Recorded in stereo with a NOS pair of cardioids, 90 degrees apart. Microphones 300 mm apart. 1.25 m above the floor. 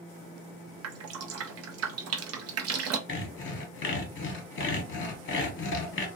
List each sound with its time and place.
0.8 s dripping: 55° right, 0.5 m
3.1 s sawing: 40° left, 0.8 m